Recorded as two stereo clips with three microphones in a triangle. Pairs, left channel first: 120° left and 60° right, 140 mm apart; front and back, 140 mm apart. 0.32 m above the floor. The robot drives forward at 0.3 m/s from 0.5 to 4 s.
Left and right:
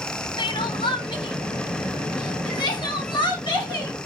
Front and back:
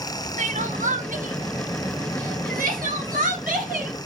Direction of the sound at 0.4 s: 165° left.